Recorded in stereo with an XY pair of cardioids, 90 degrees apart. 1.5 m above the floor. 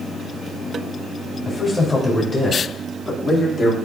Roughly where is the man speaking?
Ahead left.